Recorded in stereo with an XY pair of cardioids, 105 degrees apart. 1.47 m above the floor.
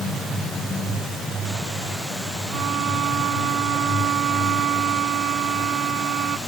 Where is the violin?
65° right.